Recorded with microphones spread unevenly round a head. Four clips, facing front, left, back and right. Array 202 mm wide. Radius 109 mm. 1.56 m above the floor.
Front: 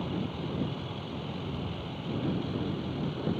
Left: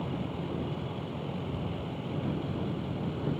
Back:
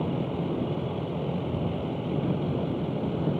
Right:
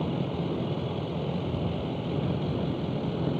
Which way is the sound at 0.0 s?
145° right.